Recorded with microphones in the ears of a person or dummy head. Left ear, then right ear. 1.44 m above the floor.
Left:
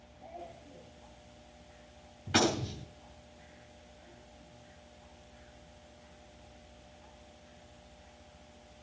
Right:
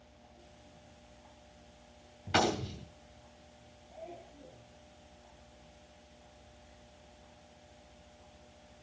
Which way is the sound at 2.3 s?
10° right (ahead or behind).